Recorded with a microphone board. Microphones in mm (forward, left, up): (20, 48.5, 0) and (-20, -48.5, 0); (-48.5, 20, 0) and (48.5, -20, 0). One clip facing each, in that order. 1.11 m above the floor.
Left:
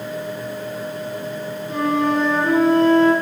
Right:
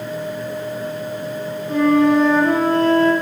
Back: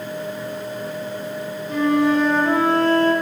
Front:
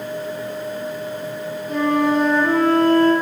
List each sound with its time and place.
1.7 s a flute: 65° right, 3 m